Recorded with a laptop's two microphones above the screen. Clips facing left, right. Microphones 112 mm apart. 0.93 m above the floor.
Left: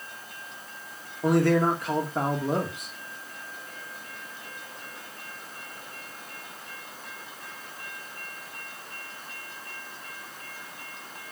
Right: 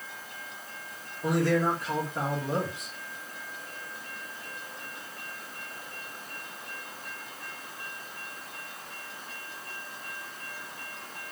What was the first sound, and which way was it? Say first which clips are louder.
A man speaking: left 4 dB; 60° left (ahead or behind).